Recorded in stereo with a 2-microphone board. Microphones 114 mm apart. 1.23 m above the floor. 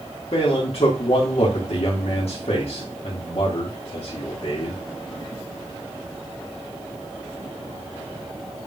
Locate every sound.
0.3 s a man speaking: 60° left (ahead or behind), 2 m